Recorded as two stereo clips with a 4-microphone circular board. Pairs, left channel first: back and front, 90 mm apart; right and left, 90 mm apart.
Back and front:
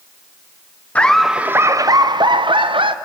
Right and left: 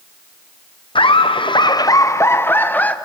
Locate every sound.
0.9 s laughter: 105° right, 0.5 m; by 3.0 s 15° right, 1.1 m